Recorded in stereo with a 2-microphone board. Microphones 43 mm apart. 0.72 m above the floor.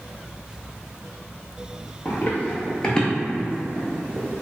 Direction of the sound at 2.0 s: 45° left (ahead or behind).